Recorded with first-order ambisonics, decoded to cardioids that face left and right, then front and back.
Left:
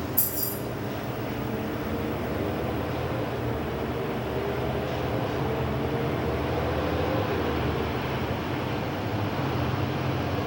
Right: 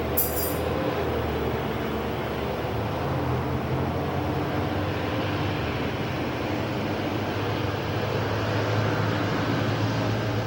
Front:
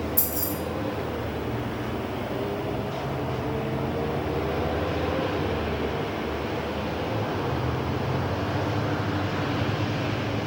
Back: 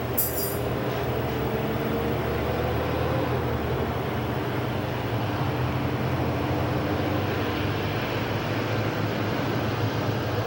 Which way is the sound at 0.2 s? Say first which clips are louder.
Right 5 dB, back 1 dB; 15° right.